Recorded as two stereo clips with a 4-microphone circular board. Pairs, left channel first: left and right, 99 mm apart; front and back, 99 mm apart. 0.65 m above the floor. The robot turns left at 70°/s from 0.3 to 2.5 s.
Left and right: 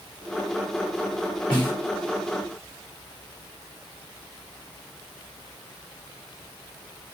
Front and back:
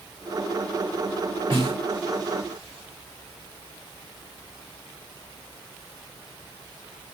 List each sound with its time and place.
1.5 s a snare drum: 170° left, 1.8 m; by 1.8 s 150° left, 1.8 m